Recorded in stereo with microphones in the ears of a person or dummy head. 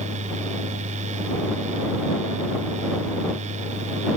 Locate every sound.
0.0 s a fan: 40° right (ahead or behind)